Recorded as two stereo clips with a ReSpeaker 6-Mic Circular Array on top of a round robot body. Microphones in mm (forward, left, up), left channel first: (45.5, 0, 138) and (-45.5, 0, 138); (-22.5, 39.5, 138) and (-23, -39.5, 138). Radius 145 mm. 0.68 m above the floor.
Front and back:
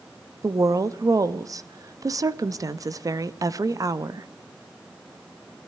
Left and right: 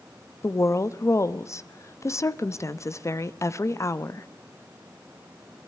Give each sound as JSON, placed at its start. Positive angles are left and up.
{"t": 0.4, "sound": "a woman speaking", "azimuth_deg": 135, "distance_m": 1.0}